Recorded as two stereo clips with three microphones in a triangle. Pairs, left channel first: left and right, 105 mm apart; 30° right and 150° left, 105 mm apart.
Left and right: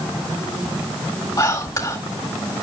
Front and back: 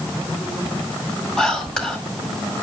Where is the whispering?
50° left, 1.5 m.